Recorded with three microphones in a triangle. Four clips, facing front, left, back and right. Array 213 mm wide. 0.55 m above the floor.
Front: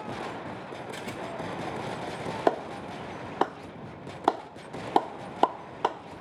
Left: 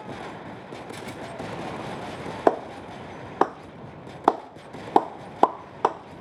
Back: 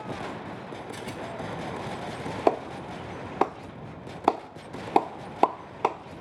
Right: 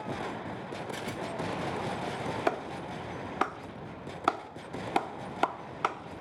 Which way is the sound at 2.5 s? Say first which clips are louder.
Left 13 dB, back 2 dB; 110° left.